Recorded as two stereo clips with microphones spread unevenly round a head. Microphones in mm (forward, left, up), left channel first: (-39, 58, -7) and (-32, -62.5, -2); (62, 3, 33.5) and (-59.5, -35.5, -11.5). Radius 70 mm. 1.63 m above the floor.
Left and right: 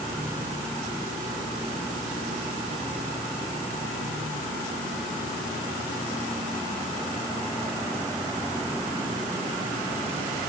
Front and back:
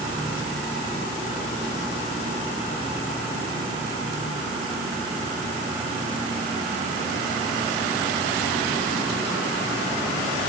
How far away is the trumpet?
No trumpet in this recording.